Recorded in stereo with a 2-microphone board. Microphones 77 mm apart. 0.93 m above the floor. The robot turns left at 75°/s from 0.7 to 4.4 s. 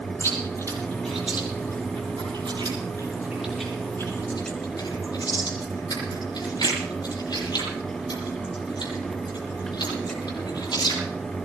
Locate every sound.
0.2 s chewing: 35° left (ahead or behind), 9.5 m; by 11.0 s 65° left (ahead or behind), 9.5 m